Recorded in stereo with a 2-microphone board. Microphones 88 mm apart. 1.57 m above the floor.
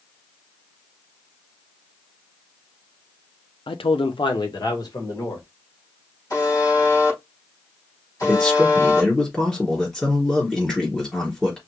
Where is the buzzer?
40° left (ahead or behind), 3.5 m.